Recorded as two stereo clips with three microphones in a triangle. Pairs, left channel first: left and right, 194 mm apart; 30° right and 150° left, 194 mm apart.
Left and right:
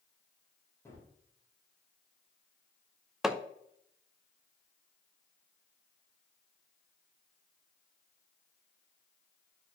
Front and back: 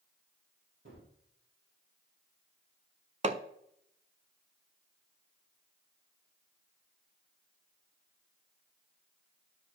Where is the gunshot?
165° left, 3.5 m.